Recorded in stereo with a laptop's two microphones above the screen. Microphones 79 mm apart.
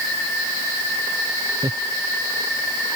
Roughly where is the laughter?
Right.